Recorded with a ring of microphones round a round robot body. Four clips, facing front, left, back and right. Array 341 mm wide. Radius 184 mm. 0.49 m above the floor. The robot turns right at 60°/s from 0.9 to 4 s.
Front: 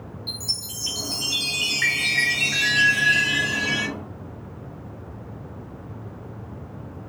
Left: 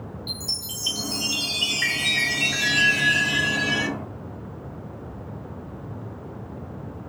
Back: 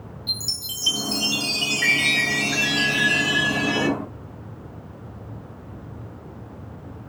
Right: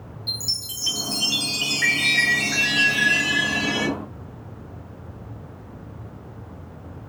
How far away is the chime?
About 1.5 m.